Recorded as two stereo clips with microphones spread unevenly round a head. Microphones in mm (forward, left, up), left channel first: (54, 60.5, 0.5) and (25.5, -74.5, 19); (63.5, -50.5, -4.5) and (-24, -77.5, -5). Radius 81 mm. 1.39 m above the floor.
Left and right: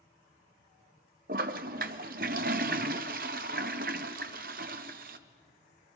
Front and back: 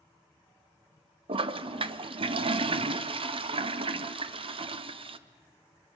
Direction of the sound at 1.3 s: 140° right.